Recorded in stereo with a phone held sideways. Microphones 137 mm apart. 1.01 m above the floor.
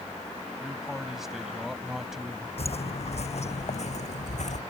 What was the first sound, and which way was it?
A man speaking, 5° right (ahead or behind).